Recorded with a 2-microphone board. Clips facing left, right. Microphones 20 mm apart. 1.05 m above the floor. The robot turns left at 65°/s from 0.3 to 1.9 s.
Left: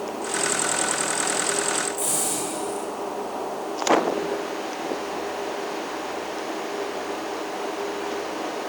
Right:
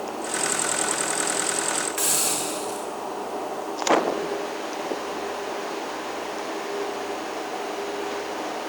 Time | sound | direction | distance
2.0 | a hiss | 80° right | 9.5 m